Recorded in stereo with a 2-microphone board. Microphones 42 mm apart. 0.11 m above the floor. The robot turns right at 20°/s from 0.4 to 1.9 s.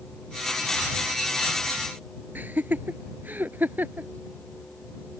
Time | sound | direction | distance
2.4 | laughter | 50° right (ahead or behind) | ?